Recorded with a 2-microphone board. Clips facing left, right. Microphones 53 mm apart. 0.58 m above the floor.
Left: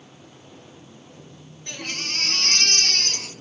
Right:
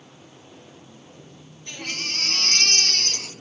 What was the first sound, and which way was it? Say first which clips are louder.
A baby crying: even; 65° left (ahead or behind).